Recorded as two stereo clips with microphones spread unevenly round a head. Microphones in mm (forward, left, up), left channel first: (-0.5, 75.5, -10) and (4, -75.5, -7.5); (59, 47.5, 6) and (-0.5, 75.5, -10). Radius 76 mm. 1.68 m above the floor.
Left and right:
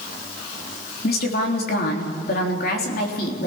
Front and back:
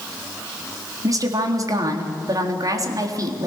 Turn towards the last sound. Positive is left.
turn(degrees=120)